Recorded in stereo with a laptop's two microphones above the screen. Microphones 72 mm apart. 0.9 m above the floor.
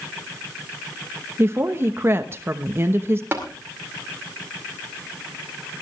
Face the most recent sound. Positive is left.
turn(degrees=-30)  # may be behind; listen again after turning